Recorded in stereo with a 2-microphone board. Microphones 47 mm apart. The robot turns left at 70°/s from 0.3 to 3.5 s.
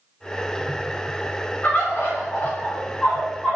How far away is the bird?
About 1.3 m.